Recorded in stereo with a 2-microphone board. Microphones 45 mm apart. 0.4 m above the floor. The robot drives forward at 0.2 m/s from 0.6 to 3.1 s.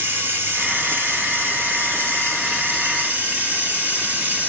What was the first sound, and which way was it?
Running water, 55° right (ahead or behind).